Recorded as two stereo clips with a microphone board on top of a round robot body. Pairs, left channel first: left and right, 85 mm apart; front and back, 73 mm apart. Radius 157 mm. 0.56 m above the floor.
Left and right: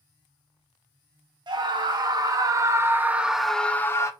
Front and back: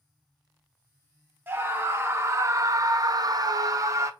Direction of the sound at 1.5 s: 120° right.